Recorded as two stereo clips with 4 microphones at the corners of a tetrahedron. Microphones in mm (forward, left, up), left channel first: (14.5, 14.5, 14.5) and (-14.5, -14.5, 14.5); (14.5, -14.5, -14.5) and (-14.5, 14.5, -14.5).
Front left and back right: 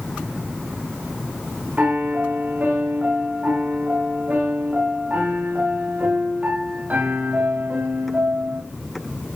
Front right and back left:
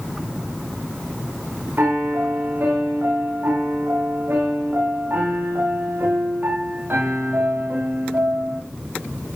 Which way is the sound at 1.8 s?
175° left.